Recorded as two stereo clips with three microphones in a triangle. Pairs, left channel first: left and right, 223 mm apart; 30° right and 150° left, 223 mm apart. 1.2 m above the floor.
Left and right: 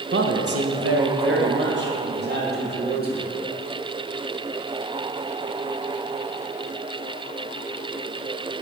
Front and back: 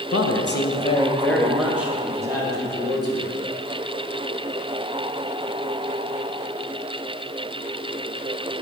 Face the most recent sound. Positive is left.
turn(degrees=-140)